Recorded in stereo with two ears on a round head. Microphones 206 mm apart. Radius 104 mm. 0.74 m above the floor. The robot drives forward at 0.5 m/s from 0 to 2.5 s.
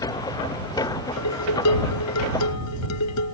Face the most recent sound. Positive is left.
turn(degrees=85)